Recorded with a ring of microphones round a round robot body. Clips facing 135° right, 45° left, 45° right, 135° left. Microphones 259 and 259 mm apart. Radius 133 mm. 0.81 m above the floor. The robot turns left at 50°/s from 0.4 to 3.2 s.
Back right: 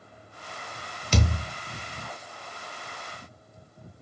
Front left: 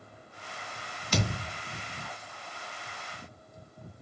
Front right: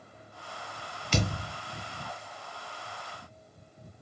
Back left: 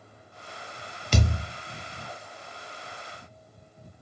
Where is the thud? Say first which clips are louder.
Back right 3 dB, back left 2 dB; 170° left, 0.6 m; by 1.4 s 155° left, 0.6 m.